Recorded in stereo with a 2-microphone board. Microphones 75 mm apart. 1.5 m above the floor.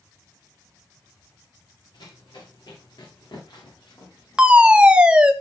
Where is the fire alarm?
15° right (ahead or behind), 1.4 m.